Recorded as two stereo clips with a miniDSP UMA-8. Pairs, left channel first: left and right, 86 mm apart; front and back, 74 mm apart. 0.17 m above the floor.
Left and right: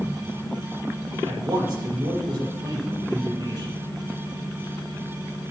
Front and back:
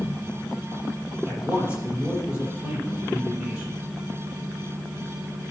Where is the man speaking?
110° right, 5 m.